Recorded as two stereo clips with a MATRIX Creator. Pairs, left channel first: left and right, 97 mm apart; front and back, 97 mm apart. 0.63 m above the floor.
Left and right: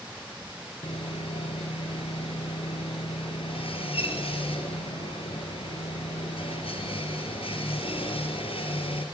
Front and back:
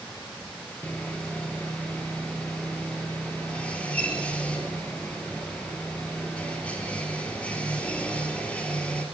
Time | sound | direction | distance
0.8 | sawing | 75° left | 3.5 m